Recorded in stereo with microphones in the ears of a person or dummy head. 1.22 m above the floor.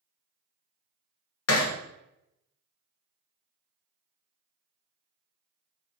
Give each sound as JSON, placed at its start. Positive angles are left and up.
{"t": 1.5, "sound": "hammering", "side_deg": 75, "distance_m": 1.0}